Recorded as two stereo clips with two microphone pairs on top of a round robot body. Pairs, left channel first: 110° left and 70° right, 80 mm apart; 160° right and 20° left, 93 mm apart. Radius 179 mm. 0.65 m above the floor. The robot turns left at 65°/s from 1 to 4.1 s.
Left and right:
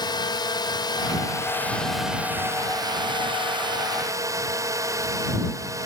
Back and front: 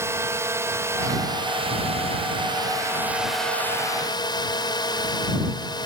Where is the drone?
80° left; by 5.9 s 120° right.